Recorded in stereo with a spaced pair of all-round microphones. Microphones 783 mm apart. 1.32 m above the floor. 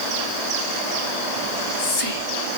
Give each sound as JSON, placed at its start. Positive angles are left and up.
{"t": 1.4, "sound": "whispering", "side_deg": 45, "distance_m": 0.7}